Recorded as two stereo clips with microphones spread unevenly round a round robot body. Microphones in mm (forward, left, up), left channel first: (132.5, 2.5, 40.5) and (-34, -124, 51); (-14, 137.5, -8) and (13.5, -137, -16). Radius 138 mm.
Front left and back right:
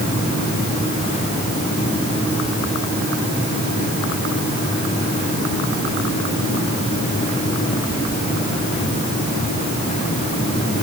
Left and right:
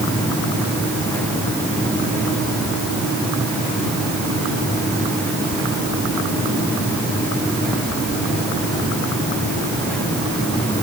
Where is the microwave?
No microwave in this recording.